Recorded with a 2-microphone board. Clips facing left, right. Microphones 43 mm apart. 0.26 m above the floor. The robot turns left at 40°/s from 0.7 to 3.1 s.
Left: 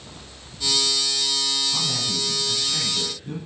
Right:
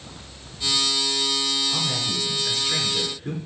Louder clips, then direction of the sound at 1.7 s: Right 1 dB; 20° right.